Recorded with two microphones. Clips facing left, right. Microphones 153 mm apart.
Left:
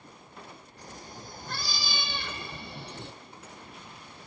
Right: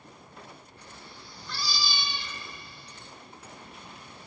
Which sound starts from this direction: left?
A cat meowing, at 0.8 s.